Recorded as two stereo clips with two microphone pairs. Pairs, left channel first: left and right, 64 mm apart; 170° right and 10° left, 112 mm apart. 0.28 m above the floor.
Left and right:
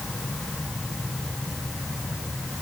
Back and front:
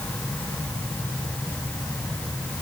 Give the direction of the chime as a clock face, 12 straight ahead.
I don't hear a chime.